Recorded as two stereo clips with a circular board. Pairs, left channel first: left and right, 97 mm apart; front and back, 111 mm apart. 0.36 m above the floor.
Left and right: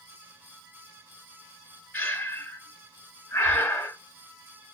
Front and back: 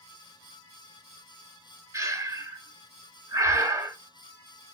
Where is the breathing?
150° left, 1.3 m.